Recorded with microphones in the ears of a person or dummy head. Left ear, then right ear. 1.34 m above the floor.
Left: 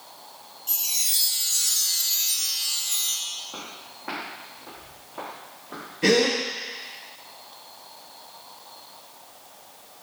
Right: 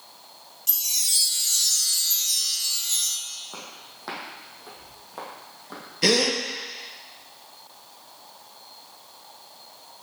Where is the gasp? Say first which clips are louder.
Left 1 dB; 60° right (ahead or behind), 1.3 m.